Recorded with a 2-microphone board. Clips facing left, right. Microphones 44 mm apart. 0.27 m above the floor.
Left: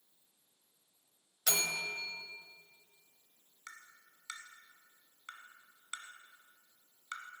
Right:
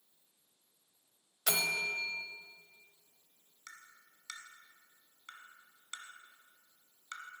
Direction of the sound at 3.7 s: 15° left (ahead or behind).